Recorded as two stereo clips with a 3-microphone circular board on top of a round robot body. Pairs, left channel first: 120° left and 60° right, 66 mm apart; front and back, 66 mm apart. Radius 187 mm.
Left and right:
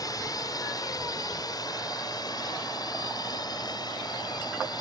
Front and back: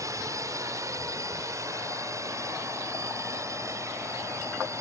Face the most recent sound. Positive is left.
turn(degrees=135)